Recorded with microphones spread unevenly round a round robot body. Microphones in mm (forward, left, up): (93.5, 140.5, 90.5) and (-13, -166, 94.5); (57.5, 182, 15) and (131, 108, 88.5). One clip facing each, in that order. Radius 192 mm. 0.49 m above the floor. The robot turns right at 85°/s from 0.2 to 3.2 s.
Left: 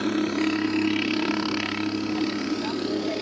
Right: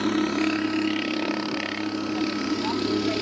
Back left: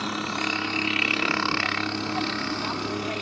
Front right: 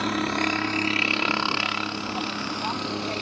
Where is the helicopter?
30° right; by 3.2 s 135° right.